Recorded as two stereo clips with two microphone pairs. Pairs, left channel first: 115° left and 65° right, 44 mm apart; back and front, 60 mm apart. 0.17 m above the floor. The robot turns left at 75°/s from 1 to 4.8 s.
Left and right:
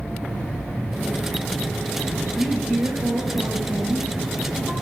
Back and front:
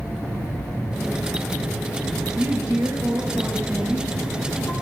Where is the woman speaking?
30° left, 2.5 m; by 4.7 s 150° right, 2.5 m.